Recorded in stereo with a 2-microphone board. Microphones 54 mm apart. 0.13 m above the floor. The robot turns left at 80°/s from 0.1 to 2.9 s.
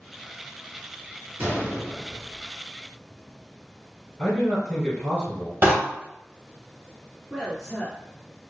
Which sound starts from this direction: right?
A door slam, at 5.6 s.